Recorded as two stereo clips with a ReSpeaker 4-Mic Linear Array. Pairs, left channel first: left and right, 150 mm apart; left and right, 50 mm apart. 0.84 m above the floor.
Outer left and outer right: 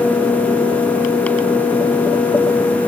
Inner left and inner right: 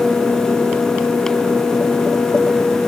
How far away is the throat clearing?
I don't hear throat clearing.